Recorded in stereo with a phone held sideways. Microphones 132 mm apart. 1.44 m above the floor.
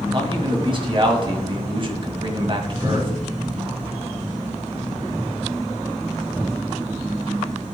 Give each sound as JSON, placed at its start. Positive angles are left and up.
{"t": 0.1, "sound": "a man speaking", "side_deg": -40, "distance_m": 2.0}